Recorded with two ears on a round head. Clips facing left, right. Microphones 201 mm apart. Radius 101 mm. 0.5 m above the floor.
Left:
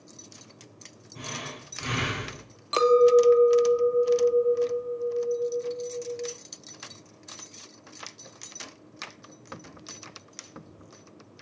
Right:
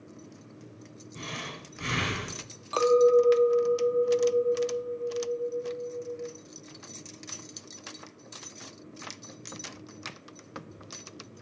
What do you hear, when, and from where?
1.1 s breathing: 25° right (ahead or behind), 5.5 m
2.7 s a clink: 25° left (ahead or behind), 0.8 m